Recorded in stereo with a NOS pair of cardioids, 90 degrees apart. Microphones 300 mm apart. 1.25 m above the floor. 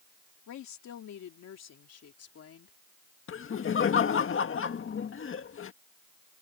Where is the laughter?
45° left.